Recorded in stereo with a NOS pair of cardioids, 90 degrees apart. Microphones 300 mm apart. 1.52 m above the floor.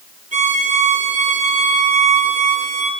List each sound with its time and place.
0.3 s a violin: 25° right, 4.5 m